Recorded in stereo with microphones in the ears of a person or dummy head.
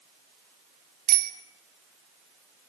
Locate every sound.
1.1 s a bicycle bell: 45° right (ahead or behind), 3 m